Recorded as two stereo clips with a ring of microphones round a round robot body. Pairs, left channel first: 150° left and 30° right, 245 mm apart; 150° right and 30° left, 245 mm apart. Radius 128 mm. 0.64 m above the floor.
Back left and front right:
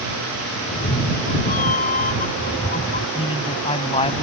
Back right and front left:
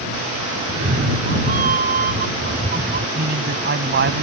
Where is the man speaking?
80° left.